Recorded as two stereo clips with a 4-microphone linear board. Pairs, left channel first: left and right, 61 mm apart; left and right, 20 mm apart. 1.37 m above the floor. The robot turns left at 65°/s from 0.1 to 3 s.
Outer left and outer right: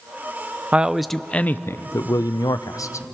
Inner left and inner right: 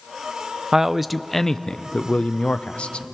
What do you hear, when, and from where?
0.7 s a man speaking: 155° right, 0.6 m; by 3.0 s 55° left, 0.6 m